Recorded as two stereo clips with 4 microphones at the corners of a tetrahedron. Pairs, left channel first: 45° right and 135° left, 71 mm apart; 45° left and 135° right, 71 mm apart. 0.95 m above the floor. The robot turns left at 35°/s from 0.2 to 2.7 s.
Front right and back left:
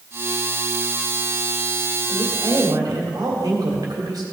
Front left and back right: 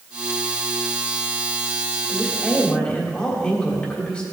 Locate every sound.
2.1 s a woman speaking: 140° left, 3 m; by 4.2 s 120° left, 3 m